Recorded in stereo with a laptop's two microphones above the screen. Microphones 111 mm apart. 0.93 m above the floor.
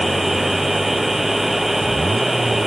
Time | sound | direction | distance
0.0 | a machine running | centre (ahead or behind) | ?